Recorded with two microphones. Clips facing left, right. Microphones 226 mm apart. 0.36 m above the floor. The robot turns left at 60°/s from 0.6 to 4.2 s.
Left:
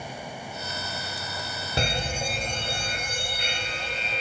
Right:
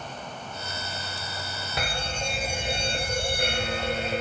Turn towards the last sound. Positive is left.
turn(degrees=-110)